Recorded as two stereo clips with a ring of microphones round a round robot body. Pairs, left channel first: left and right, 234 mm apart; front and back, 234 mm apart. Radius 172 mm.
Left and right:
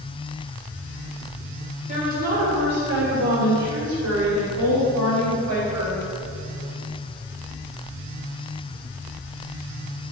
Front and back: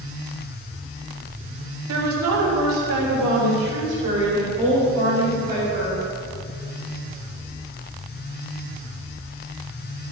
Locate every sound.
1.9 s a woman speaking: 155° right, 1.8 m; by 6.0 s 115° right, 4 m